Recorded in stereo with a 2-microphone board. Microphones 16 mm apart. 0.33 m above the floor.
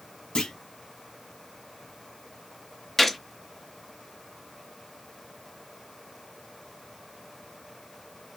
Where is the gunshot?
10° left (ahead or behind), 0.5 m.